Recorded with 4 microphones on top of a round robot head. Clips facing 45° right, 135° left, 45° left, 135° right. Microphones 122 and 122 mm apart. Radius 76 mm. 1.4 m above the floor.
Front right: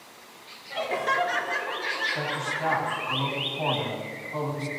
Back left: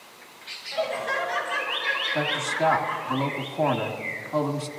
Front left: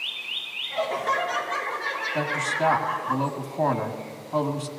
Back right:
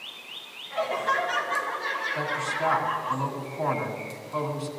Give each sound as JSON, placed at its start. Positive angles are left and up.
{"t": 0.7, "sound": "laughter", "azimuth_deg": -40, "distance_m": 5.0}
{"t": 2.1, "sound": "a man speaking", "azimuth_deg": 95, "distance_m": 1.6}